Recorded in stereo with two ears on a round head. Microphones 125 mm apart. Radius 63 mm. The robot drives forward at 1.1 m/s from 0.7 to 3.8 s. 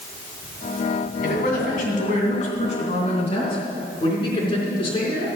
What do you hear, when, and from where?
1.2 s a man speaking: 70° left (ahead or behind), 3 m; by 5.3 s 40° left (ahead or behind), 4.5 m